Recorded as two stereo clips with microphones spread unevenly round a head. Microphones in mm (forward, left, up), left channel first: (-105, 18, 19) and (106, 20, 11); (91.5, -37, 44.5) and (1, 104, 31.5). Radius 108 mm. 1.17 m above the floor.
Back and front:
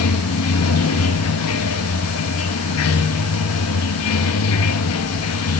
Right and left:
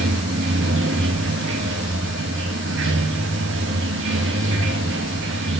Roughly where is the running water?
Behind.